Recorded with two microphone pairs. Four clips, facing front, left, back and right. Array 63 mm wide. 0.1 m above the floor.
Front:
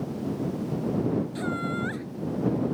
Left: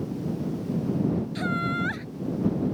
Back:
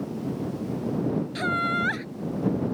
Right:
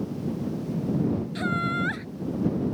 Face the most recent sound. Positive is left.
turn(degrees=-175)